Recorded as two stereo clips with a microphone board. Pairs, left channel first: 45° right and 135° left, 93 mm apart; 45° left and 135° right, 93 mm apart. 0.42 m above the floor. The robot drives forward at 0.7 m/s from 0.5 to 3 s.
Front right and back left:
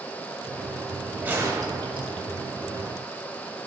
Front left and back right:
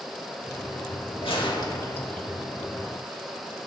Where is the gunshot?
60° left, 0.6 m; by 2.3 s 130° left, 0.7 m.